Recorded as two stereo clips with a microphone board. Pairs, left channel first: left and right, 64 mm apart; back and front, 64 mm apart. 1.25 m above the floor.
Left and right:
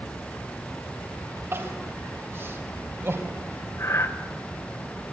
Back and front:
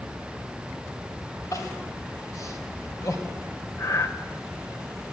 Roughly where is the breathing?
Behind left.